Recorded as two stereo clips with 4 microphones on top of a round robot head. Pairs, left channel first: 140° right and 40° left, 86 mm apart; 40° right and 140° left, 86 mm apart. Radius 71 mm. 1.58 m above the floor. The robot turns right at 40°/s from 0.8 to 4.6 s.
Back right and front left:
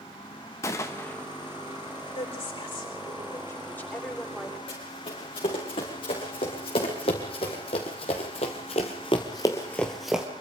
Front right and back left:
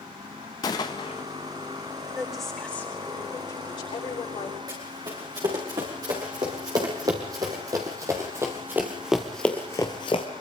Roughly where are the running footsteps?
Behind.